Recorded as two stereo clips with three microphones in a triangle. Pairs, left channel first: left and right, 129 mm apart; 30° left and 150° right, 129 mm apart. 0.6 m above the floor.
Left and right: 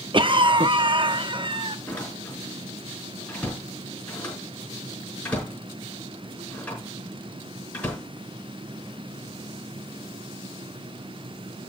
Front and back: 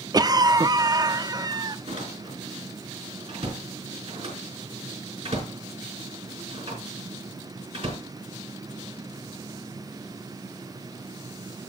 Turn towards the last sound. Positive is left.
turn(degrees=170)